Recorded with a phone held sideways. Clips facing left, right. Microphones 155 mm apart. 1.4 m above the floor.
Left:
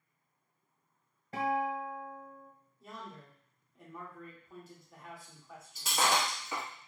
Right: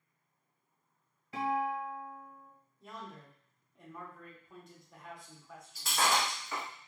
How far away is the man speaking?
About 0.9 m.